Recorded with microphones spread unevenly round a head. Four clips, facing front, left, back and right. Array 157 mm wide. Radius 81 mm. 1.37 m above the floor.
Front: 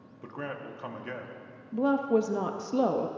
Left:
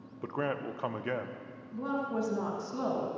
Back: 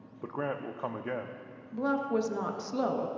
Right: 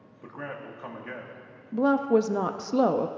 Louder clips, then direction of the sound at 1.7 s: Right 11 dB, front 4 dB; 75° right.